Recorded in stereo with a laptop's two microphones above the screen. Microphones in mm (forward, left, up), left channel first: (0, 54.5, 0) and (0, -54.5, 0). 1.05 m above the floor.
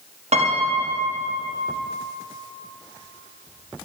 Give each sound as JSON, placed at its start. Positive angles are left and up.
{"t": 0.3, "sound": "a piano", "side_deg": -75, "distance_m": 1.2}